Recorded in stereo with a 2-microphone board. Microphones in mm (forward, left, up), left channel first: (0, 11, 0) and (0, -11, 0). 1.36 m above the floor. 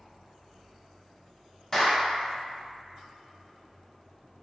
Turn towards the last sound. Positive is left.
turn(degrees=20)  # may be behind; listen again after turning